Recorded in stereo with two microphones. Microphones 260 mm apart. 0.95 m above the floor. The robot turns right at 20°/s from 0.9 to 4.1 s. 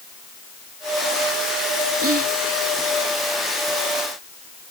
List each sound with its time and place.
2.0 s whispering: 65° right (ahead or behind); by 2.3 s 60° right (ahead or behind)